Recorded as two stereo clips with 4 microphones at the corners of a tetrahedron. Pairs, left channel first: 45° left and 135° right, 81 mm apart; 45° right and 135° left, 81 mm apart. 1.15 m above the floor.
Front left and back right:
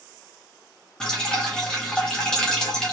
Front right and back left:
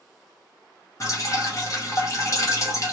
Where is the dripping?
30° right, 0.8 m.